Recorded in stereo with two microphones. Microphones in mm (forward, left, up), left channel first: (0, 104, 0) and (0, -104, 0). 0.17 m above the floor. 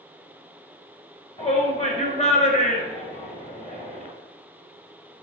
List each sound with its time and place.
1.4 s a shout: 35° left (ahead or behind), 1.9 m